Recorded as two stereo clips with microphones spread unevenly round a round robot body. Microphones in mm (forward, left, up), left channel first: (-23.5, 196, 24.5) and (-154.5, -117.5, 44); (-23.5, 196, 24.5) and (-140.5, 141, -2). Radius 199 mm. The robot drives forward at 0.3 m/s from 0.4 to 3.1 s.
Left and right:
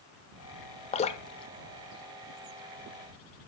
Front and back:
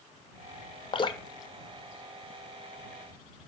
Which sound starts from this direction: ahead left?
Dripping, at 0.9 s.